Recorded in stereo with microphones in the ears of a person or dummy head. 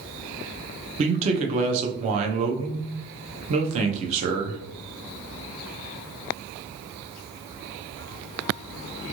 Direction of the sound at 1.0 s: 35° right (ahead or behind).